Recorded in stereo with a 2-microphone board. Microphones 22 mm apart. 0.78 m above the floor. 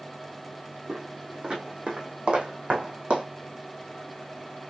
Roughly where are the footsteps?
Right.